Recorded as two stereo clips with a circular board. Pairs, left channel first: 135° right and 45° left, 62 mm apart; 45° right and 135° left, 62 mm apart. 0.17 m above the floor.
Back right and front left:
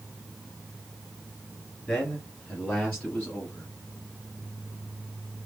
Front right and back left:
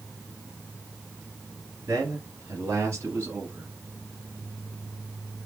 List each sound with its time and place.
1.9 s a man speaking: 155° left, 2 m; by 3.7 s 170° left, 1.5 m